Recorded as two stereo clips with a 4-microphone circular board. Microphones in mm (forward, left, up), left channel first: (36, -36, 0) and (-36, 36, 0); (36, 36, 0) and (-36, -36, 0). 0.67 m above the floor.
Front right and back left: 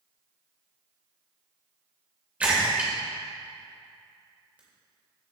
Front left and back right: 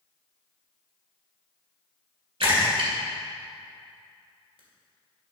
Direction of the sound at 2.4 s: 150° right.